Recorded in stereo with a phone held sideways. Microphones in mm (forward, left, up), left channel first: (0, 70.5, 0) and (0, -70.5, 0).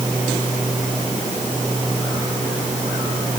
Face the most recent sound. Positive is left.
No sound to turn to.